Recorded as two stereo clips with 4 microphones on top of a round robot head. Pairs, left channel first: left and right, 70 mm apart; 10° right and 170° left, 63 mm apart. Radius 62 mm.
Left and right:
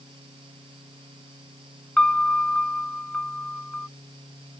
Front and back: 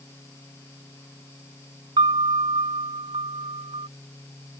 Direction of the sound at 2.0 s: 170° left.